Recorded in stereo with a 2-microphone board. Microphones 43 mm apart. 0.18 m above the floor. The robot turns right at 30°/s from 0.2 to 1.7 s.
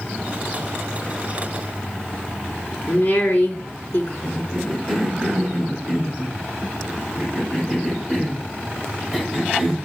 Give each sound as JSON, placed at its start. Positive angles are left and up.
{"t": 2.9, "sound": "a woman speaking", "side_deg": 45, "distance_m": 2.5}
{"t": 4.2, "sound": "a cough", "side_deg": 5, "distance_m": 6.5}